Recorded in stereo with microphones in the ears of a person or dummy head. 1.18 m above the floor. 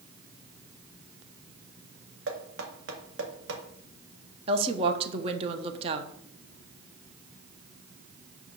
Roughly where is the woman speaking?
Right.